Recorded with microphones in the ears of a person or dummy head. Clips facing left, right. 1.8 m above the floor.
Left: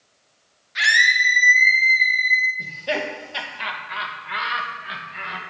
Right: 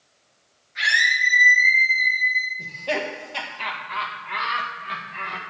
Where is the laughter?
10° left (ahead or behind), 1.7 m.